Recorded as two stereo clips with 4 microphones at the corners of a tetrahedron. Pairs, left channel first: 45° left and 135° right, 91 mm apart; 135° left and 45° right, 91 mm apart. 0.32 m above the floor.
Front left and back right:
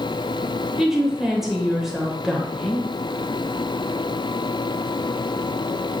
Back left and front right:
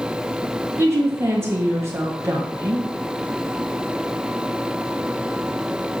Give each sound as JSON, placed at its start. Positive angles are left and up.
{"t": 0.8, "sound": "a woman speaking", "azimuth_deg": -55, "distance_m": 1.1}